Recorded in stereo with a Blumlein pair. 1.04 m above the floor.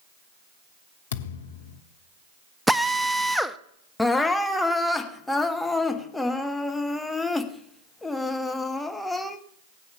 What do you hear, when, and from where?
1.1 s a thud: 60° left, 1.2 m
2.7 s a drill: straight ahead, 0.6 m
4.0 s crying: 5° left, 1.1 m